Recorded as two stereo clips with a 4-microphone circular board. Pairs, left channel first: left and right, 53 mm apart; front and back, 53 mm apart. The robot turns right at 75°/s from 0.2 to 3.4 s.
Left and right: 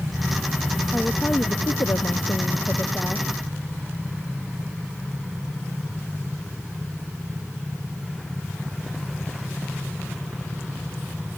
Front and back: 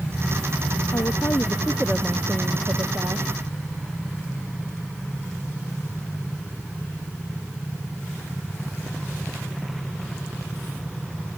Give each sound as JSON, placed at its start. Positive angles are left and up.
{"t": 0.9, "sound": "a woman speaking", "azimuth_deg": 10}